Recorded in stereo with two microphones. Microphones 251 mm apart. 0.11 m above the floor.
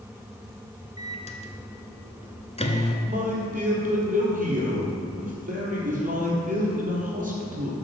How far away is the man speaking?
About 2.5 m.